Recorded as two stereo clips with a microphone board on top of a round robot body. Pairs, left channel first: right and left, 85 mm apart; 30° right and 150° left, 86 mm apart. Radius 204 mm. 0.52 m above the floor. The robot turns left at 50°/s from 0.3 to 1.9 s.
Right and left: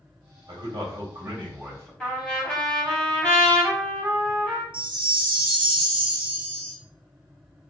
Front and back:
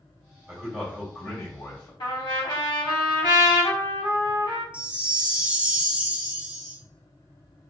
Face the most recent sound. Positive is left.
turn(degrees=75)